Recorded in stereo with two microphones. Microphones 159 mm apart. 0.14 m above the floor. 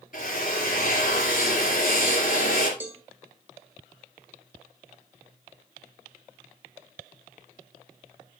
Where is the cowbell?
10° right (ahead or behind), 1.3 m.